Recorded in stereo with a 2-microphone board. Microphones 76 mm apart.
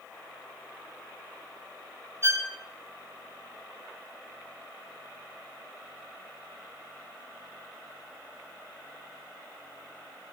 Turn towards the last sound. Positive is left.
turn(degrees=-35)  # may be behind; listen again after turning